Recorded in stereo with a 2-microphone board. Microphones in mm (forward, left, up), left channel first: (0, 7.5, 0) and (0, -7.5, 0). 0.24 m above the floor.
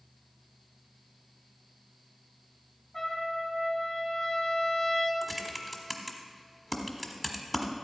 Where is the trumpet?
15° left (ahead or behind), 2 m.